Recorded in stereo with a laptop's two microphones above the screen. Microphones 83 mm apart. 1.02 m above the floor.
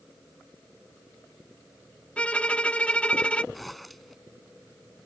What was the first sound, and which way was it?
A violin, 15° left (ahead or behind).